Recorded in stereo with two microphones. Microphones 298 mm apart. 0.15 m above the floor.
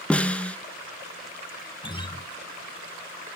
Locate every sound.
0.1 s a snare drum: 5° left (ahead or behind), 0.5 m
1.8 s a guitar: 15° left (ahead or behind), 0.9 m